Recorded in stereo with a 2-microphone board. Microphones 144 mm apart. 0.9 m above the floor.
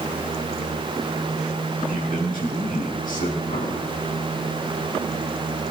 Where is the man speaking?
80° left, 6.5 m; by 3.4 s 65° left (ahead or behind), 6 m.